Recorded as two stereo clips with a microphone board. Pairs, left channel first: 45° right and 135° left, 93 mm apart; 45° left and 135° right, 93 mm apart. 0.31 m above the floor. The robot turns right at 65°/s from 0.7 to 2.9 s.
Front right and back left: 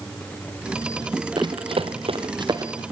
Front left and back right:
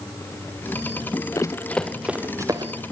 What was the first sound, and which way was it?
Running footsteps, 95° left.